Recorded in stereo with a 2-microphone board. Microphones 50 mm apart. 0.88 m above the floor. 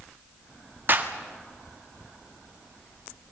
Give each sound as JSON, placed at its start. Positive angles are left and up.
{"t": 0.9, "sound": "a clap", "side_deg": -40, "distance_m": 1.6}